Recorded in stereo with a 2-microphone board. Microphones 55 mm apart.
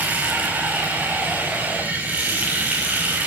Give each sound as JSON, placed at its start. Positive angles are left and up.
{"t": 0.0, "sound": "running water", "side_deg": -30, "distance_m": 5.0}